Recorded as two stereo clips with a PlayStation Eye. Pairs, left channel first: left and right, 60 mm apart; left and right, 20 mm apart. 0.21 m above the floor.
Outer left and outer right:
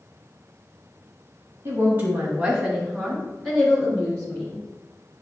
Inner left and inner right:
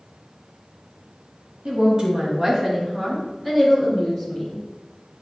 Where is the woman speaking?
35° right (ahead or behind), 1.4 m; by 4.6 s 15° left (ahead or behind), 4 m.